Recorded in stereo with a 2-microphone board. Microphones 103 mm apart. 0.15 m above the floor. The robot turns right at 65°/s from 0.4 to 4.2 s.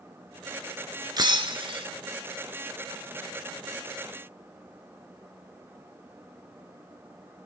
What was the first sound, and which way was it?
Breaking glass, 125° right.